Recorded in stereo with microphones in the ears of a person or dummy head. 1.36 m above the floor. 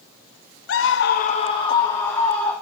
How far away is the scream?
About 0.9 m.